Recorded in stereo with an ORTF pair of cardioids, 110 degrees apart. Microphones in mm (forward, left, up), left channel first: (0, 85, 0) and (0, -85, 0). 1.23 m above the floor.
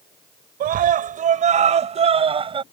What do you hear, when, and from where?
0.6 s a scream: 60° right; by 2.6 s 30° right